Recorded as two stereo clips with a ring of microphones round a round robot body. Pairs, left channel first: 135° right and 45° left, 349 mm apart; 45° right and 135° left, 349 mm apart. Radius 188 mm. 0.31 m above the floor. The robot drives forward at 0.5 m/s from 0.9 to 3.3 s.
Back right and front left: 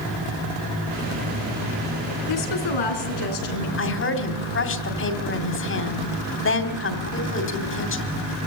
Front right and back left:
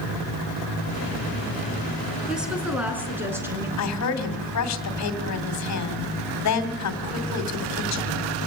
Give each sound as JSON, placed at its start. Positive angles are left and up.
{"t": 2.3, "sound": "a woman speaking", "azimuth_deg": -135, "distance_m": 4.0}
{"t": 3.8, "sound": "a woman speaking", "azimuth_deg": -80, "distance_m": 2.5}